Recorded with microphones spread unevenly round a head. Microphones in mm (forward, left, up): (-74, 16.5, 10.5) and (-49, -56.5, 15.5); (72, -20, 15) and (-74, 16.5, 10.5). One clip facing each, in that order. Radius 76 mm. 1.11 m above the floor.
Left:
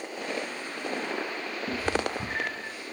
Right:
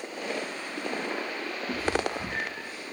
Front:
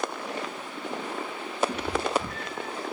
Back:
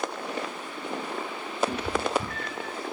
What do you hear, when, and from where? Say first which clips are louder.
1.7 s a cat meowing: even, even; 125° left, 3 m